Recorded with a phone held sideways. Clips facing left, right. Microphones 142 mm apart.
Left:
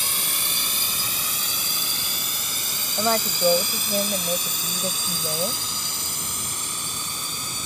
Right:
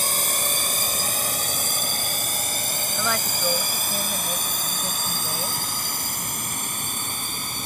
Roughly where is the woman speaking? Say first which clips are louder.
Left 6 dB; left.